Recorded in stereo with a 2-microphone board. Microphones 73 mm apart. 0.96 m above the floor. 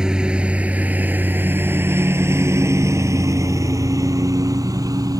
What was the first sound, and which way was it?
A lawn mower, 10° right (ahead or behind).